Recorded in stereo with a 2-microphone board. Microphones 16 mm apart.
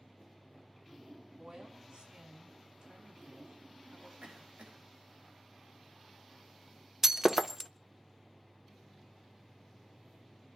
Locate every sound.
1.4 s a woman speaking: 65° right (ahead or behind), 4.5 m; by 4.1 s 75° right (ahead or behind), 7 m
4.2 s a cough: 80° right, 8 m
7.0 s breaking glass: 20° right (ahead or behind), 0.6 m